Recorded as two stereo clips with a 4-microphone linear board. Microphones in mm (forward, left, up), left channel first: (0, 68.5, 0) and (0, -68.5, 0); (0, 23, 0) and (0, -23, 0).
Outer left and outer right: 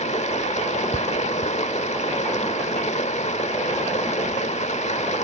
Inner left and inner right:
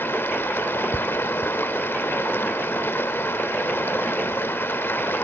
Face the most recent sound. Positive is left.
turn(degrees=55)  # may be behind; listen again after turning